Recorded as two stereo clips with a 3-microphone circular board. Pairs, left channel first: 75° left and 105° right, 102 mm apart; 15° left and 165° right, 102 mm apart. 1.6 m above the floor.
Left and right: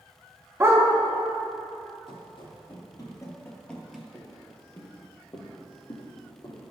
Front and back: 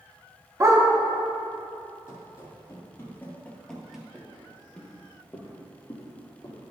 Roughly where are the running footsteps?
Ahead left.